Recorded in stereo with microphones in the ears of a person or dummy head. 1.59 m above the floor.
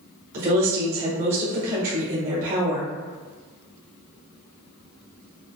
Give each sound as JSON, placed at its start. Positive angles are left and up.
{"t": 0.3, "sound": "a woman speaking", "side_deg": -50, "distance_m": 1.6}